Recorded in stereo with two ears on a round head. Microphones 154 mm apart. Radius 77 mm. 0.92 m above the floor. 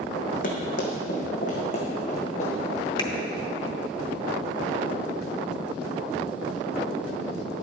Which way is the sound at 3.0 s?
30° left (ahead or behind).